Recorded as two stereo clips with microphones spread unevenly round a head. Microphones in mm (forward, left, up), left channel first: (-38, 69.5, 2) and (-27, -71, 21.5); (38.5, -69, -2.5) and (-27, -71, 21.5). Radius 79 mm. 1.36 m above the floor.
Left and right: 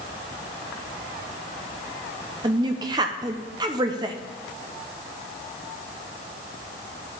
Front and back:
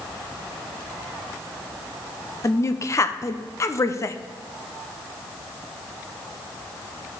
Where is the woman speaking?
20° right, 0.8 m.